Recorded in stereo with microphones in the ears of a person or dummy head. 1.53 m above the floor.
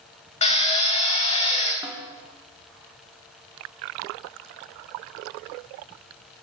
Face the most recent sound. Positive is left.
turn(degrees=-15)  # may be behind; listen again after turning